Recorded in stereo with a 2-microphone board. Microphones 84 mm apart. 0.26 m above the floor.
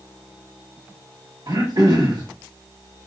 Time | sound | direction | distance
1.5 | throat clearing | 50° right (ahead or behind) | 1.2 m